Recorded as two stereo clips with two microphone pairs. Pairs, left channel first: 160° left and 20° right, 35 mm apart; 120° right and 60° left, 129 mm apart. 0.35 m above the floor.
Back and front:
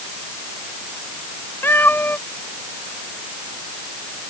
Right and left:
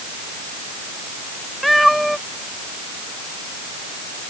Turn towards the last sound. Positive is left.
turn(degrees=150)